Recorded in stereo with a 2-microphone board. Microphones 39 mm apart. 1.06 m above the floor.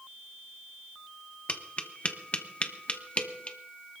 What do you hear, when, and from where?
1.5 s tapping: 30° left (ahead or behind), 1.2 m